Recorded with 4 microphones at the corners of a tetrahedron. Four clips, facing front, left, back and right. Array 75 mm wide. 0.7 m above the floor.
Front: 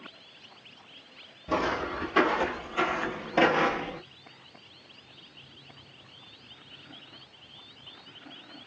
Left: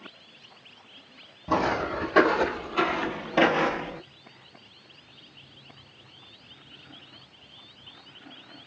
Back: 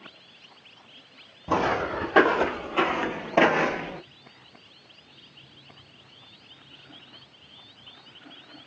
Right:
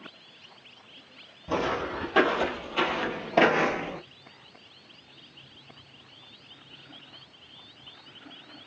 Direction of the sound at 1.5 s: 155° left.